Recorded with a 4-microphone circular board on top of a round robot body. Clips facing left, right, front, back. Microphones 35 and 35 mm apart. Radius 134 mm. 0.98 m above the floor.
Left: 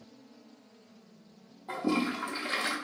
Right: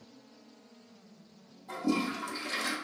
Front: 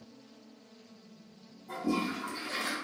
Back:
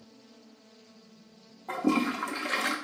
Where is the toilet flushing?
150° left, 0.6 m.